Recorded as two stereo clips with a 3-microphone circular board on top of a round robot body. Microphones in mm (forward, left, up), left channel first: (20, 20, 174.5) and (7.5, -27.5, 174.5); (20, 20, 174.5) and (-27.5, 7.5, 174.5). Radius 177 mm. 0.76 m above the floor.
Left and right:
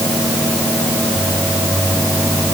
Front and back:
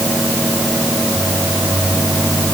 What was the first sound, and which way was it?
Only background noise.